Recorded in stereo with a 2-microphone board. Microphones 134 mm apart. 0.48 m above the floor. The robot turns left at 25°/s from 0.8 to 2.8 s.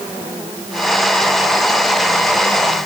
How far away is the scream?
I don't hear a scream.